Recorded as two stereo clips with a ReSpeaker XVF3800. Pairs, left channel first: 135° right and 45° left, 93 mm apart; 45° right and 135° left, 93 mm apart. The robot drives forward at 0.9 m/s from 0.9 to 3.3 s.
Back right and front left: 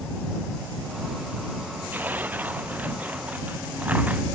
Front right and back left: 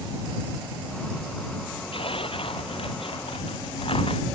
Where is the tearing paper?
25° right; by 4.2 s 30° right.